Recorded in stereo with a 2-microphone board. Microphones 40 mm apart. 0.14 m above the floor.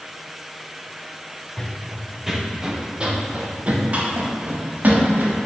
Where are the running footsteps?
15° left (ahead or behind), 1.6 m; by 5.4 s 50° right (ahead or behind), 4.5 m.